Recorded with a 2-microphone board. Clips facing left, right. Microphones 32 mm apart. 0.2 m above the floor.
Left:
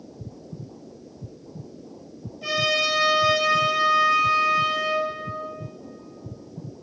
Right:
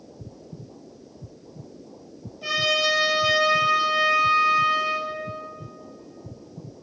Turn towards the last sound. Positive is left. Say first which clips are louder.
# even
turn(degrees=5)  # may be behind; listen again after turning